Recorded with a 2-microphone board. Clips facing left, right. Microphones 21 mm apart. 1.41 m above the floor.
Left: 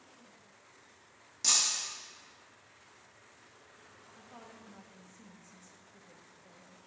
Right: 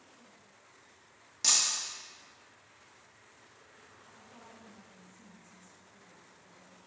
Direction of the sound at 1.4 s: 20° right (ahead or behind).